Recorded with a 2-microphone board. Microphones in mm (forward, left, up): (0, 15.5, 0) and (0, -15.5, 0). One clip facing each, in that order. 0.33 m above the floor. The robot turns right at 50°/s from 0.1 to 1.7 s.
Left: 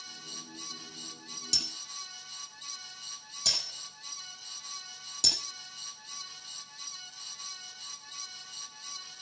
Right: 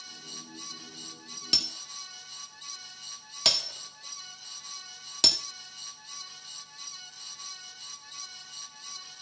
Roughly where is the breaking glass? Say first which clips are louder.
Right 4 dB; right.